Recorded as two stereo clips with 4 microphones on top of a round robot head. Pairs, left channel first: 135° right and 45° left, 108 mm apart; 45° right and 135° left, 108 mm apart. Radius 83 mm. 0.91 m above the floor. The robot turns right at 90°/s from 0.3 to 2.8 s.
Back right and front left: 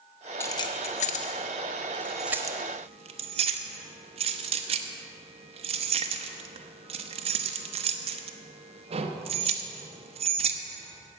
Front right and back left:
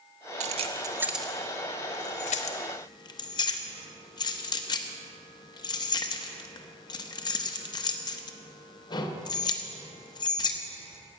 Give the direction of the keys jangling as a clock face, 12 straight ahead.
7 o'clock.